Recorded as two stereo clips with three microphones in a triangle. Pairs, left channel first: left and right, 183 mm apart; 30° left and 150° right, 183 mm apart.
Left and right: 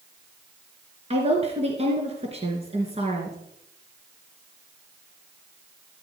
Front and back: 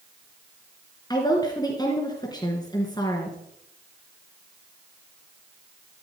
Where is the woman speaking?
35° right, 3 m.